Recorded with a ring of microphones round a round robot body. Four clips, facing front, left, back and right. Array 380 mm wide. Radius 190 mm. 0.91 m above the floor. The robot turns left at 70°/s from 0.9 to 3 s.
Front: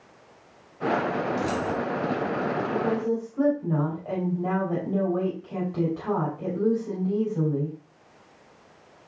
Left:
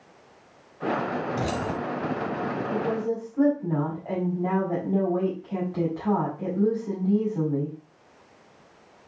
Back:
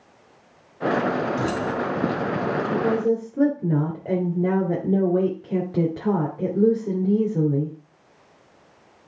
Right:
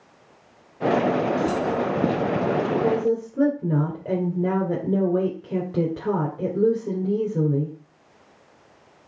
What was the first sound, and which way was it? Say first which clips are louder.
Keys jangling: right 5 dB, back 2 dB; 135° left.